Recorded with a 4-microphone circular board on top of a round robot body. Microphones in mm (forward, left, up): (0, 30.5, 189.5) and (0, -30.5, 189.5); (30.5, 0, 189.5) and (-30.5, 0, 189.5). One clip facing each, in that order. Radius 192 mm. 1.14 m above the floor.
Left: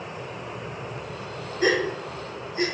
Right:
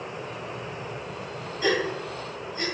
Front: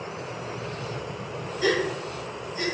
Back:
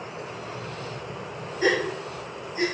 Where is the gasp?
125° left, 5 m.